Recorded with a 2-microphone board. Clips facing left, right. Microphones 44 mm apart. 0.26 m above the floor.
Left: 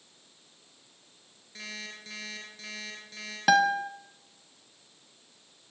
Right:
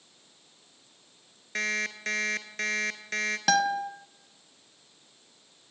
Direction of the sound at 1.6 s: 70° right (ahead or behind).